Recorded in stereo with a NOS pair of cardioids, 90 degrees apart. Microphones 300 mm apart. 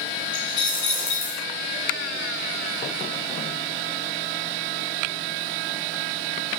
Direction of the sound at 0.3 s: 35° left.